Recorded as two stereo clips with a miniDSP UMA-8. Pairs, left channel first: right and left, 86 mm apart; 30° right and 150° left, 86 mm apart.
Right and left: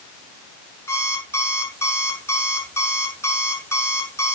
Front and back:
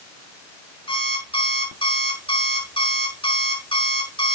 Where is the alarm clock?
30° right, 5.5 m.